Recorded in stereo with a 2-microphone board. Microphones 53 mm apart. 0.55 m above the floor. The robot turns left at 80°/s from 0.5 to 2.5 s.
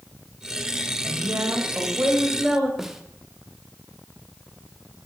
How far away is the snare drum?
About 1.1 m.